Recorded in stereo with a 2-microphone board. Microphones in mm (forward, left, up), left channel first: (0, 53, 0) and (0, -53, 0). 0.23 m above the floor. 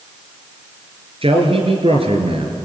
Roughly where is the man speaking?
Right.